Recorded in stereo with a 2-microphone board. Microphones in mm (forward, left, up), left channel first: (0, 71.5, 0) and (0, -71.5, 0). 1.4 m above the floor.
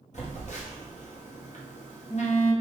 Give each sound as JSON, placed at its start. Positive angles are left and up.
{"t": 0.1, "sound": "a phone buzzing", "side_deg": 55, "distance_m": 1.0}